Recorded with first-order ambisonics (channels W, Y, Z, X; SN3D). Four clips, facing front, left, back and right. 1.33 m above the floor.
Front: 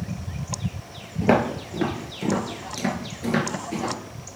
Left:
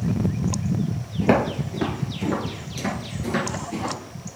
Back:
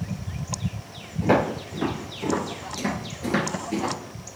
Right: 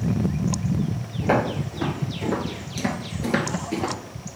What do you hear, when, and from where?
1.2 s footsteps: 45° left, 1.6 m; by 3.9 s 100° right, 1.5 m